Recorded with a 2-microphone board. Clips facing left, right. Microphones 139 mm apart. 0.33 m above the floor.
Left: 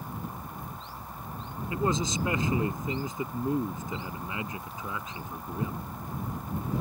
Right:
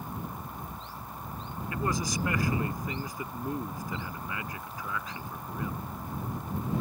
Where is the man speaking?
25° left (ahead or behind).